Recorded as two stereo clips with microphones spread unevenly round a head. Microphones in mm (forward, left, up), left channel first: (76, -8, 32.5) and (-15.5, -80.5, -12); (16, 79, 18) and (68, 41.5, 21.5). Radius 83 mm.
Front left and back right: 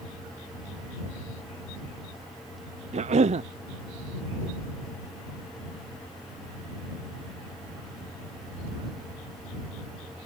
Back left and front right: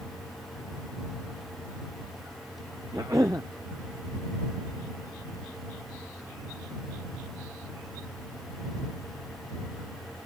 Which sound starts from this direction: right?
A cough, at 2.9 s.